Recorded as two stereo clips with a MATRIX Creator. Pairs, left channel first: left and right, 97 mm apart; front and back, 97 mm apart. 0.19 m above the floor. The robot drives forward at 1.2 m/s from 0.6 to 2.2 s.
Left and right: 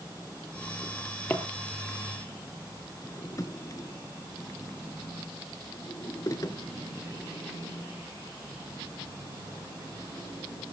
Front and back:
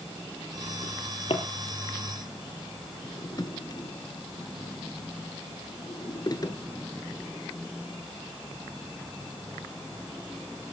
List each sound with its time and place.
0.8 s a drawer: 20° left, 3 m; by 6.6 s 40° left, 1.4 m